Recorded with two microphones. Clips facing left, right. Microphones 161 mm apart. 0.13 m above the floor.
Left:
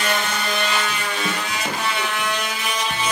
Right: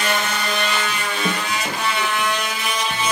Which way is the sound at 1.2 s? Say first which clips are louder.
Right 4 dB; 15° right (ahead or behind).